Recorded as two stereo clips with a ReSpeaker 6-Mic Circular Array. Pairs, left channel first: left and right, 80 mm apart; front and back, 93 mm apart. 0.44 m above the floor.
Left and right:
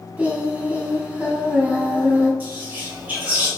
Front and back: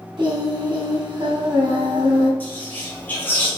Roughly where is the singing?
Behind.